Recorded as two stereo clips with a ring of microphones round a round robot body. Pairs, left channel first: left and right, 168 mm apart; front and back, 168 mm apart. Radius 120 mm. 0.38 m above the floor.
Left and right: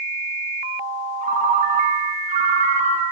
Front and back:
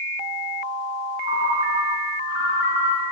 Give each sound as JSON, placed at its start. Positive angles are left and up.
{"t": 1.2, "sound": "a ringtone", "azimuth_deg": -40, "distance_m": 3.0}